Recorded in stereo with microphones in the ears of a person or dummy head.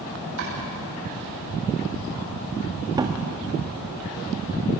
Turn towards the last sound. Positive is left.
turn(degrees=-20)  # may be behind; listen again after turning